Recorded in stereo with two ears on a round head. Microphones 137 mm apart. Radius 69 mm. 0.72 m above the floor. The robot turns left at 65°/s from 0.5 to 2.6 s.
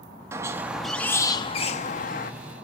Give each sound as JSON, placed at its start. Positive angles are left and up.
{"t": 0.3, "sound": "a squeak", "azimuth_deg": -160, "distance_m": 0.7}